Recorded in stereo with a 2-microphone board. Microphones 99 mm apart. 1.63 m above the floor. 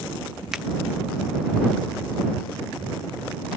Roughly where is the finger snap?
Centre.